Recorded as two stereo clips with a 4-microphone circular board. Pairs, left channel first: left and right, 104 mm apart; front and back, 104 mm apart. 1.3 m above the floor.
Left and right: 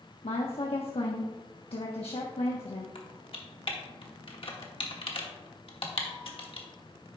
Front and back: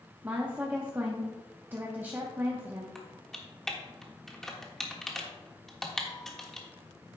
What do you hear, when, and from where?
0.2 s a woman speaking: 110° left, 1.0 m
3.0 s typing on a keyboard: 85° left, 1.3 m